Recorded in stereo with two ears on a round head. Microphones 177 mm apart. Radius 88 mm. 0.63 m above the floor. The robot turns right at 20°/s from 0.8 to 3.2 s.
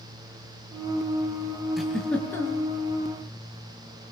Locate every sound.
1.8 s a giggle: centre (ahead or behind), 5 m; by 2.7 s 15° left (ahead or behind), 5 m